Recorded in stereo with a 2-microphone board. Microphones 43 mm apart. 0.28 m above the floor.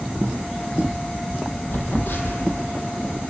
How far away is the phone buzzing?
About 5 m.